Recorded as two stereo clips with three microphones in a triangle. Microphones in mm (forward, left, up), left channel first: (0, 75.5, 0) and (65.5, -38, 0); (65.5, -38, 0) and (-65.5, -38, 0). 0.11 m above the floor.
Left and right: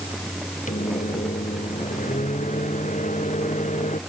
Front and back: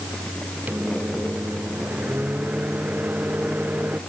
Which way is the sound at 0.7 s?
105° left.